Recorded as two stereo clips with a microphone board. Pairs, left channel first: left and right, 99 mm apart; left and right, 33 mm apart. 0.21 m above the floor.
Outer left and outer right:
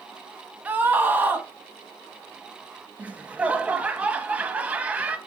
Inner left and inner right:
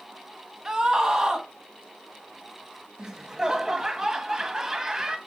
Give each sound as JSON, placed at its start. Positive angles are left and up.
{"t": 0.7, "sound": "a scream", "side_deg": -20, "distance_m": 1.5}
{"t": 3.0, "sound": "laughter", "side_deg": -15, "distance_m": 1.1}